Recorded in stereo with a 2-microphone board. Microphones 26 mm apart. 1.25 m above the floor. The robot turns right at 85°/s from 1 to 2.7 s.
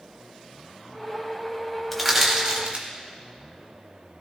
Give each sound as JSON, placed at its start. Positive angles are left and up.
{"t": 1.9, "sound": "crushing", "side_deg": 5, "distance_m": 2.5}